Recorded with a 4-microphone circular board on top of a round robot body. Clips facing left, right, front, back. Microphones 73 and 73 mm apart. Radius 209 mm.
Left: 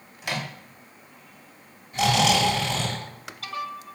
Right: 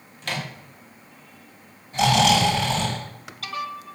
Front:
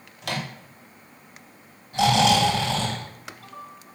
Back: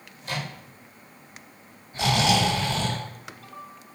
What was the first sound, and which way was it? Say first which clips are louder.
A microwave: even, front 2 dB; 10° left.